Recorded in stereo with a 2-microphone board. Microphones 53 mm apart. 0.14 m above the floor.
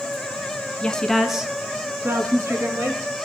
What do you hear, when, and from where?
0.8 s a woman speaking: 20° left (ahead or behind), 1.3 m; by 3.0 s 60° right (ahead or behind), 2.5 m